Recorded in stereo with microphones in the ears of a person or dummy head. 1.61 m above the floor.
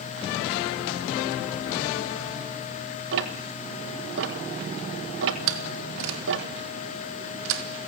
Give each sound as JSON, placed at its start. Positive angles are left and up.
{"t": 3.1, "sound": "ticking", "side_deg": -65, "distance_m": 1.2}
{"t": 5.5, "sound": "a door slam", "side_deg": -75, "distance_m": 2.5}